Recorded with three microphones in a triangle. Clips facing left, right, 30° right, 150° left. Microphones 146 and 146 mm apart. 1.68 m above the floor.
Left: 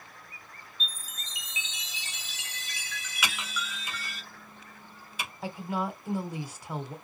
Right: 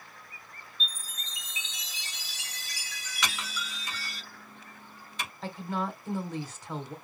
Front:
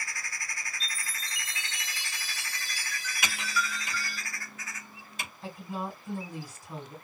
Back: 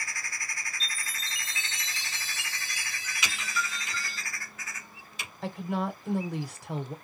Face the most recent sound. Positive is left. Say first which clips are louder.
# left 1 dB, back 6 dB
turn(degrees=170)